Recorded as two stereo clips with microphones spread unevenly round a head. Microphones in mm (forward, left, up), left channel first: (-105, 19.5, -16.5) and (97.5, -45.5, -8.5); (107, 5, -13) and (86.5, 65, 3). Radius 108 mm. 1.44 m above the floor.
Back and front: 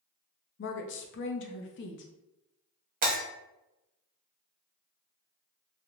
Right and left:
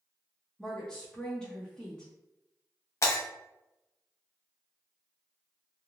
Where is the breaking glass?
45° right, 1.0 m.